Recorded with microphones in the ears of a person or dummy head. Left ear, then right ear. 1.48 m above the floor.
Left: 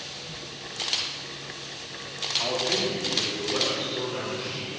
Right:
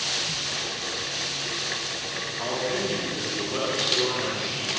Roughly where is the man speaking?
Centre.